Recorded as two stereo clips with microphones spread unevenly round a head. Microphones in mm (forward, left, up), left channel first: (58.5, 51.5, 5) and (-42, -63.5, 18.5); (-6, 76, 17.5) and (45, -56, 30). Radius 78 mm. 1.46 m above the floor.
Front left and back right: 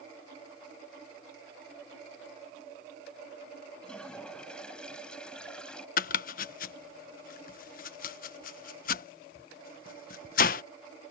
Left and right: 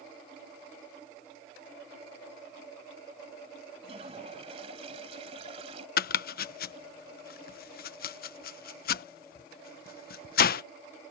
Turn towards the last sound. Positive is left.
turn(degrees=90)